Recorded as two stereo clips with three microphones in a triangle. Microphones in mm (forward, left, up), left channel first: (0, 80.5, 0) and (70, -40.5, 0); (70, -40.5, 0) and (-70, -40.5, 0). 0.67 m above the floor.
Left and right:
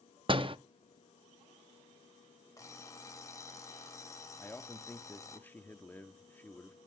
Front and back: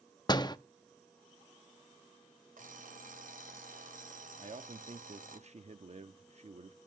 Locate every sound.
0.3 s a door slam: 40° right, 0.6 m
2.6 s an alarm clock: 175° right, 1.4 m
4.4 s a man speaking: 170° right, 0.9 m